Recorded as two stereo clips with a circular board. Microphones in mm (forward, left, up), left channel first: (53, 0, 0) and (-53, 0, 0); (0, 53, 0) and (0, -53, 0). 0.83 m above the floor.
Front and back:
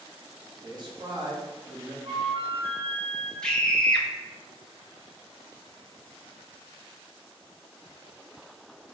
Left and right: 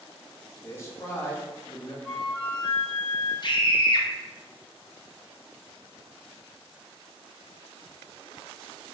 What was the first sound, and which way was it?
A man speaking, 145° left.